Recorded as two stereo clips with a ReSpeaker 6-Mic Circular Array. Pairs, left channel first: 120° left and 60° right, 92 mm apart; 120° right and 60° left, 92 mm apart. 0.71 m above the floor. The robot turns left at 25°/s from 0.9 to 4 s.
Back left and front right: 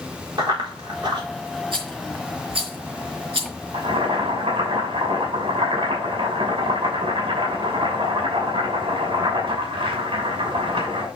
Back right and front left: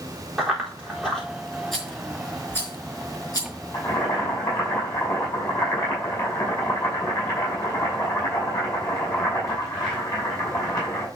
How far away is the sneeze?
No sneeze in this recording.